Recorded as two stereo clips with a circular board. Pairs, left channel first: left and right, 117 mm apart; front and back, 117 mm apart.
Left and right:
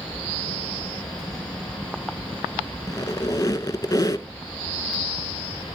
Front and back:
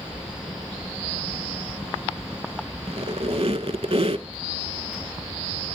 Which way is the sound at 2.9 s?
145° left.